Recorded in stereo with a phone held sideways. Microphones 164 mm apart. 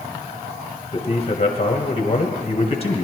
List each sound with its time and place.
0.9 s a man speaking: 40° left (ahead or behind), 1.1 m